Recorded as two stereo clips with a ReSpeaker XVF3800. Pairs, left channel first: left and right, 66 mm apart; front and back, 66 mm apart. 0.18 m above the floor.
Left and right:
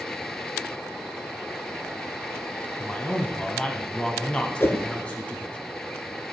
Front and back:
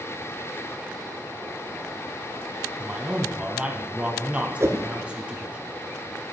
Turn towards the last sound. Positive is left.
turn(degrees=140)